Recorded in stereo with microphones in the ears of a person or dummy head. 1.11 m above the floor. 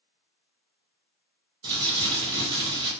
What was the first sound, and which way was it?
Crumpling, 25° right (ahead or behind).